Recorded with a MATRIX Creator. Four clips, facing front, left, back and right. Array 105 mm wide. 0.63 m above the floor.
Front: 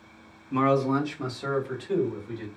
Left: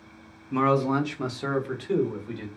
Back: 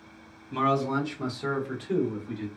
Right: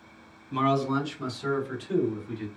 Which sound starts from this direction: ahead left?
A man speaking, at 0.5 s.